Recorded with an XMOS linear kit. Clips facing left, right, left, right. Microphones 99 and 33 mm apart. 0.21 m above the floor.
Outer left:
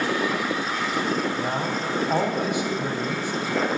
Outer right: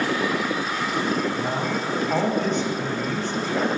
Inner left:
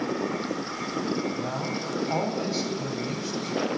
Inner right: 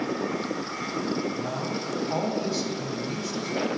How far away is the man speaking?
About 1.0 m.